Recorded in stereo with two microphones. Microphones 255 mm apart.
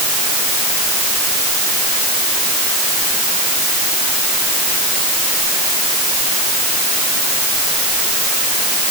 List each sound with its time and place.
Only background noise.